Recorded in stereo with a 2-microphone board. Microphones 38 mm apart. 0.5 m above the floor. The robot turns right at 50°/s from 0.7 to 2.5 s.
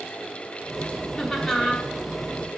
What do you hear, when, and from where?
1.2 s laughter: 15° left (ahead or behind), 1.1 m; by 1.9 s centre (ahead or behind), 1.1 m